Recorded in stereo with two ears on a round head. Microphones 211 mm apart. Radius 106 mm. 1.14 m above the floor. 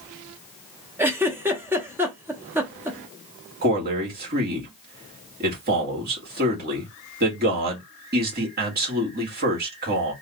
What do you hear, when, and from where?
1.0 s a giggle: 10° right (ahead or behind), 0.9 m
3.6 s a man speaking: 40° right (ahead or behind), 1.9 m